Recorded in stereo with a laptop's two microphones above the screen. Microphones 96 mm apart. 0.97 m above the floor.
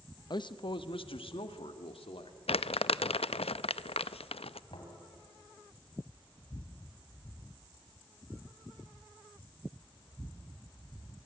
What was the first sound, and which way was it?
A man speaking, 45° left (ahead or behind).